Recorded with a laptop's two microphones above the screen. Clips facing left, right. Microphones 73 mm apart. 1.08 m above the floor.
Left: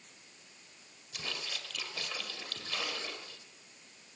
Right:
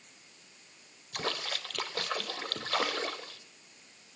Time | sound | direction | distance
1.1 | a splash | 60° right (ahead or behind) | 1.3 m